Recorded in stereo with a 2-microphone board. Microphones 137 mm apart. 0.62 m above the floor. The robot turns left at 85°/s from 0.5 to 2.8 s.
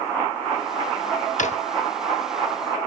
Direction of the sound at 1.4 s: 65° left (ahead or behind).